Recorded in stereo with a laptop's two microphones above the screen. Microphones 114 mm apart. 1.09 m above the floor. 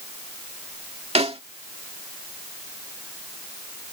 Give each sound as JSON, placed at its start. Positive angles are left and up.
{"t": 1.1, "sound": "a snare drum", "side_deg": -60}